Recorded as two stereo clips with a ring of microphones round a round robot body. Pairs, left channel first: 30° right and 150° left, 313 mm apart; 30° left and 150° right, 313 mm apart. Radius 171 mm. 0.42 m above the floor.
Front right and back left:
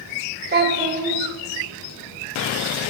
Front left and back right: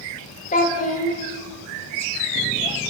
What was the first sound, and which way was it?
A child speaking, 95° left.